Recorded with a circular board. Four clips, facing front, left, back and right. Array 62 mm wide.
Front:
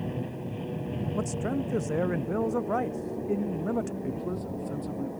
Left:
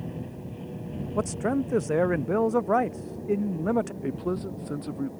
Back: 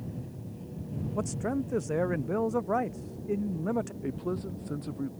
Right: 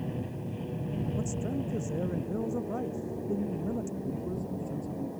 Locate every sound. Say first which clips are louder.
0.0 s an aircraft: right 1 dB, front 7 dB; 5° right; by 5.2 s 10° right
1.1 s a man speaking: left 7 dB, even; 90° left
4.0 s a man speaking: left 5 dB, front 1 dB; 105° left